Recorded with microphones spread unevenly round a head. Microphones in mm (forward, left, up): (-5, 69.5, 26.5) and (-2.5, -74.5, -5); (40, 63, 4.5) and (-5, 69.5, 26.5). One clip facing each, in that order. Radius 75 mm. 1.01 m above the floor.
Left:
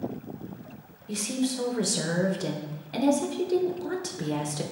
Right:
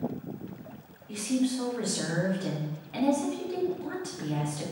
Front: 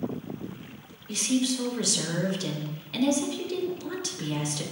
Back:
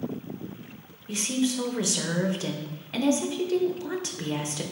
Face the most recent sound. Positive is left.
turn(degrees=90)